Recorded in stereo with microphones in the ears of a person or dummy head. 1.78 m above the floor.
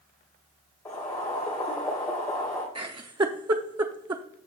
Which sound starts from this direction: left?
Boiling, at 0.8 s.